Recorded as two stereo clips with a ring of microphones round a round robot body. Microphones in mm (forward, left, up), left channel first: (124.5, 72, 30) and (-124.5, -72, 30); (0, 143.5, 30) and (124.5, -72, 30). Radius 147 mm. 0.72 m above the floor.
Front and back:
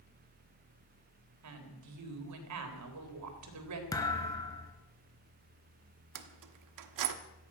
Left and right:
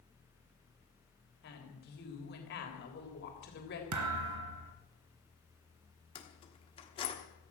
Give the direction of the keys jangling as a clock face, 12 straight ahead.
6 o'clock.